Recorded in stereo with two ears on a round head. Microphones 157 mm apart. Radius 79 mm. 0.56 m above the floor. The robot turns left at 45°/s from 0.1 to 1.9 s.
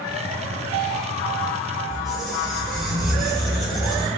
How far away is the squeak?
About 1.1 m.